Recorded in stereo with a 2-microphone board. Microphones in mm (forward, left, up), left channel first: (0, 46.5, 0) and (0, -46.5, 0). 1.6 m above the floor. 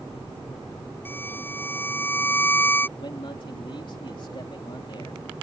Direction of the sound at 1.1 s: 20° left (ahead or behind).